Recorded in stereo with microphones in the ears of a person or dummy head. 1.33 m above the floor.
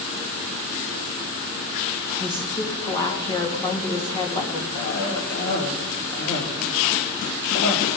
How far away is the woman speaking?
About 2.5 m.